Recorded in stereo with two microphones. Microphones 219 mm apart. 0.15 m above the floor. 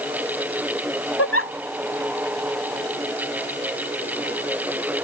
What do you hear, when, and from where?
1.2 s a giggle: 85° left